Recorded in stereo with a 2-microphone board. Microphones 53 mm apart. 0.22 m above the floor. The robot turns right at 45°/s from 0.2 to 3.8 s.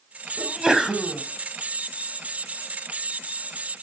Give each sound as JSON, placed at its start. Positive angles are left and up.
{"t": 0.4, "sound": "a sneeze", "side_deg": -15, "distance_m": 1.1}